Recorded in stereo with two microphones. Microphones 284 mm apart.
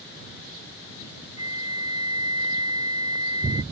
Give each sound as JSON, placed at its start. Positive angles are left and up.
{"t": 1.4, "sound": "a flute", "side_deg": 75}